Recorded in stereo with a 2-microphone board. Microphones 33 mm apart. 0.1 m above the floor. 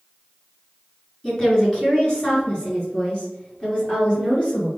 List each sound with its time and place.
1.2 s a woman speaking: 15° left (ahead or behind), 1.7 m; by 4.7 s 30° left (ahead or behind), 3 m